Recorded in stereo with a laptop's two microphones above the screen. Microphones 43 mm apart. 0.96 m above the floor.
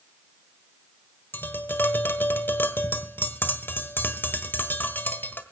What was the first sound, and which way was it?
Tapping, 55° left (ahead or behind).